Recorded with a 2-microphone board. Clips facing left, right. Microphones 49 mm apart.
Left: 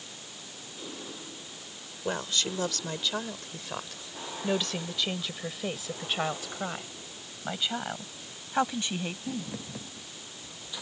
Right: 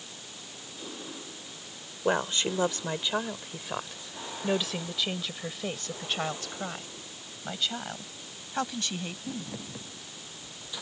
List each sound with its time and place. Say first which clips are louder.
2.0 s a woman speaking: right 4 dB; 30° right (ahead or behind); by 9.5 s 20° left (ahead or behind)